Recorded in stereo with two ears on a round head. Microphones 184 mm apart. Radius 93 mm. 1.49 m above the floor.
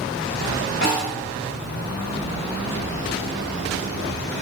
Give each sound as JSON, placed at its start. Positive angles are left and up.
{"t": 0.8, "sound": "a snare drum", "side_deg": 55, "distance_m": 1.7}